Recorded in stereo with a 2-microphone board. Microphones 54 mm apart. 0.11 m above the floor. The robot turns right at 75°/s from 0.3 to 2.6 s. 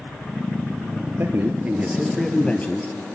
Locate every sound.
1.2 s a man speaking: 70° right, 2 m; by 3.0 s 35° left, 2 m